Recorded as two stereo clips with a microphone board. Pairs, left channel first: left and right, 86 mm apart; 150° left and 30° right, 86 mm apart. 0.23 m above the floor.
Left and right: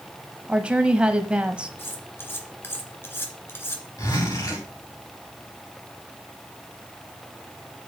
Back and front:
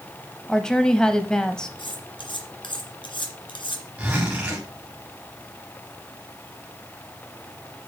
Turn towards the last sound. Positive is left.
turn(degrees=50)